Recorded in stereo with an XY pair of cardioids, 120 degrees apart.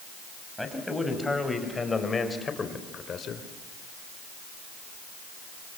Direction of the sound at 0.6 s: 5° left.